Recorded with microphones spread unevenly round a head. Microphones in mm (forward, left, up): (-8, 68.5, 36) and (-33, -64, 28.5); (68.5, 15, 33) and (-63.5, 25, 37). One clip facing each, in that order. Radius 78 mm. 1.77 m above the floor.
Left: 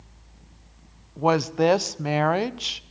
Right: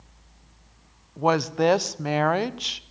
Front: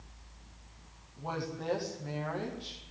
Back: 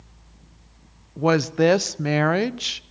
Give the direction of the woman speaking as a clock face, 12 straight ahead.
6 o'clock.